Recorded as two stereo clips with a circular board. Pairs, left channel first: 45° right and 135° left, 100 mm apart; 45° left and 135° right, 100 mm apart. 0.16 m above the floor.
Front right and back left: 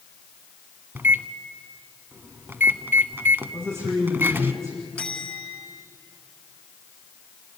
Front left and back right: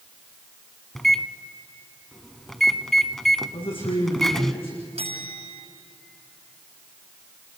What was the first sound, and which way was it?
A microwave, 130° left.